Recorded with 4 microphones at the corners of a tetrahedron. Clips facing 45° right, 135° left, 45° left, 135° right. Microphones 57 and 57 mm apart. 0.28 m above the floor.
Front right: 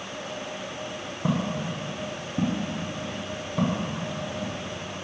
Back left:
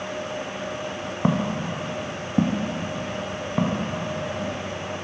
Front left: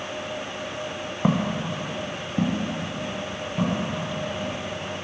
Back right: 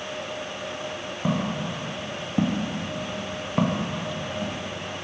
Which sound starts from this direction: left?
Footsteps, at 1.2 s.